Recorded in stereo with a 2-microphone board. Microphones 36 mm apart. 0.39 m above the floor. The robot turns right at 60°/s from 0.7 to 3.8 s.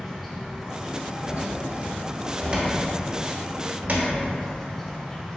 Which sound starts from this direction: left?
A cupboard door, at 1.3 s.